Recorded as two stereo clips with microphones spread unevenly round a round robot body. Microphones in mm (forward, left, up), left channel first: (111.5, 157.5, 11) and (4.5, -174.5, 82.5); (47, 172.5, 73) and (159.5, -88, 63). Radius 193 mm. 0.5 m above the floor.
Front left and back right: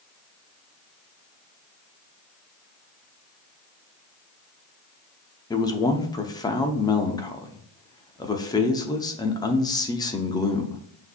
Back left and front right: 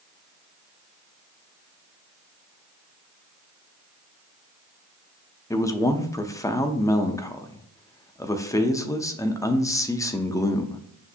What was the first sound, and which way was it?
A man speaking, 40° left.